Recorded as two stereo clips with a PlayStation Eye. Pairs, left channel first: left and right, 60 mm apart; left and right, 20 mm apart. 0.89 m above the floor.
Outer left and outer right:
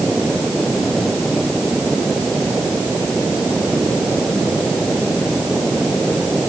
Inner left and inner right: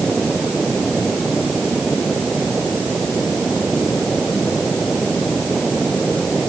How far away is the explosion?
I don't hear an explosion.